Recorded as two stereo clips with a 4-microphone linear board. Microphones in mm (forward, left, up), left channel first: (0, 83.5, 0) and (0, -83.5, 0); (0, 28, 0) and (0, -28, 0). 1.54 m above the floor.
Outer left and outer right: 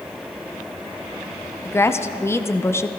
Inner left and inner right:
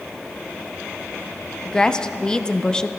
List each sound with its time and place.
1.6 s a woman speaking: 15° left (ahead or behind), 0.6 m